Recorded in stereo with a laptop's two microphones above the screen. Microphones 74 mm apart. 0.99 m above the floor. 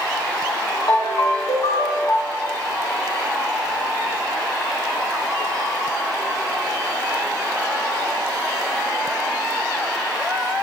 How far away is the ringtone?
About 0.6 m.